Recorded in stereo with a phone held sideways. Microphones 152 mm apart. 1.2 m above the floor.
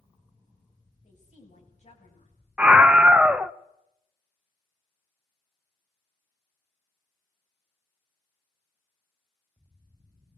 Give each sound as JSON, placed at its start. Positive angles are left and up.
{"t": 1.0, "sound": "a woman speaking", "side_deg": 50, "distance_m": 8.5}
{"t": 2.6, "sound": "a scream", "side_deg": -10, "distance_m": 0.7}